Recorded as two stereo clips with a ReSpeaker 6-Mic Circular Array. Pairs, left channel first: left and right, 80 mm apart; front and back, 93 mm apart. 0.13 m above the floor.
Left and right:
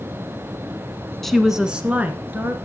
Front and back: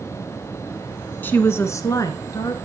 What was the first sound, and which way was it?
A woman speaking, 10° left.